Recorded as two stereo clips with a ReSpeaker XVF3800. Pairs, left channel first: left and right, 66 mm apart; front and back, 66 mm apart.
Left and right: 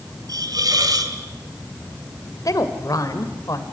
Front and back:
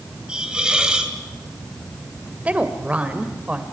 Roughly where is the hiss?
Right.